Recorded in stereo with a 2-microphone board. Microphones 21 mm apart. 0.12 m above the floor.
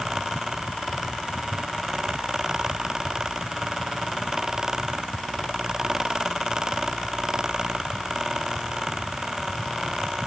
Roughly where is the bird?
No bird in this recording.